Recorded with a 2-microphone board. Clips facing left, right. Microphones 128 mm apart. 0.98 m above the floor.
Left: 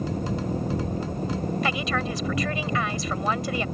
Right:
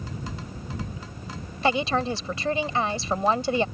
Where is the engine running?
45° left (ahead or behind).